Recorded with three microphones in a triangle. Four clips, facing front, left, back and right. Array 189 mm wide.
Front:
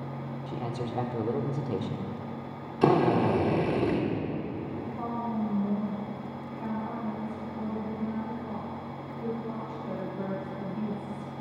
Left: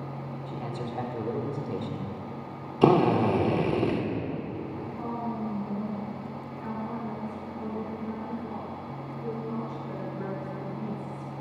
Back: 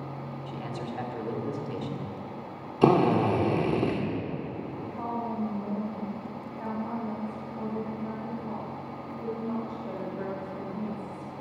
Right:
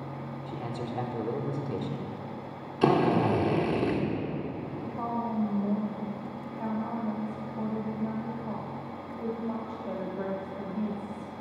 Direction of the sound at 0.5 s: Straight ahead.